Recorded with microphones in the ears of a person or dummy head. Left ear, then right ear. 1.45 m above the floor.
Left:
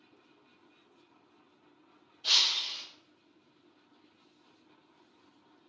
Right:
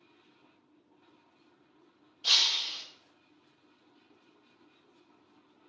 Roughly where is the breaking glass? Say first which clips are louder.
Right 1 dB; centre.